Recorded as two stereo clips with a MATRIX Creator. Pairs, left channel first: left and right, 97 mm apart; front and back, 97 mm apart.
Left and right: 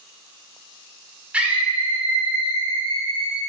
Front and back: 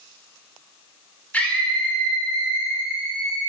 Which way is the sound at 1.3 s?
35° right.